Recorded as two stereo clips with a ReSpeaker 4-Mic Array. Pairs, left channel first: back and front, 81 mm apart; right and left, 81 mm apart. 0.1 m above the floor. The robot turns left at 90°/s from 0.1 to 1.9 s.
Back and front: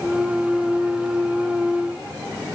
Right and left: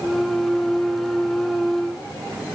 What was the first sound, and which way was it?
Only background noise.